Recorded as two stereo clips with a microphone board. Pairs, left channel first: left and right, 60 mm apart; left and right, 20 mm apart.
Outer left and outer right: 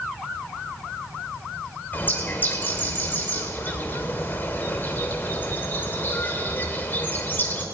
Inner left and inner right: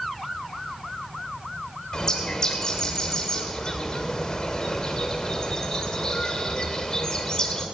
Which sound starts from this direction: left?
A bird, at 1.9 s.